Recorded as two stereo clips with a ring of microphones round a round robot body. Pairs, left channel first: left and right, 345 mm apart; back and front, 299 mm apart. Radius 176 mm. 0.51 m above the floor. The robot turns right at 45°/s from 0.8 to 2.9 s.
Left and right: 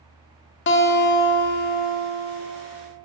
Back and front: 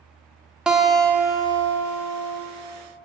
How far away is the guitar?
About 0.7 m.